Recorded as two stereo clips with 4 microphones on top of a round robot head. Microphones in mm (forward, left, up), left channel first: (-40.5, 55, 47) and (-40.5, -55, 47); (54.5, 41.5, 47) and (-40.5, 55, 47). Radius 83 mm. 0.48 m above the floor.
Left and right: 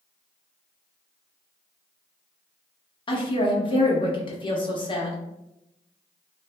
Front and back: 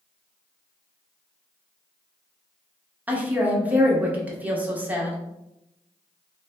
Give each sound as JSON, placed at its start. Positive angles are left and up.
{"t": 3.1, "sound": "a woman speaking", "azimuth_deg": 105, "distance_m": 1.0}